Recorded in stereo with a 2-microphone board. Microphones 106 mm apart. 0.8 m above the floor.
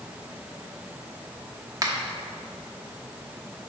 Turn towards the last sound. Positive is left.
turn(degrees=-35)  # may be behind; listen again after turning